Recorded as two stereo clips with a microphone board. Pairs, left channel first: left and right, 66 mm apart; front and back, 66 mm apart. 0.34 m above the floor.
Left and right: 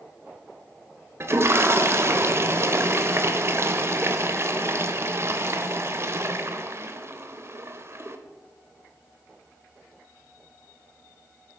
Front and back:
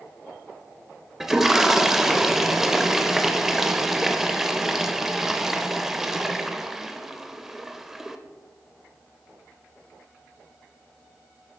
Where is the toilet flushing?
100° right, 0.5 m.